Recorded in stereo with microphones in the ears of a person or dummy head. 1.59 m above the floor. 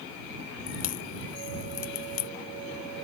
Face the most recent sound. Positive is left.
turn(degrees=45)  # may be behind; listen again after turning